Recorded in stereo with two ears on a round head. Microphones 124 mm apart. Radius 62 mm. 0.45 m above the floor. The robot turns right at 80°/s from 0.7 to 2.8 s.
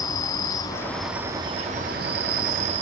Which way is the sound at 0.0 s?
155° left.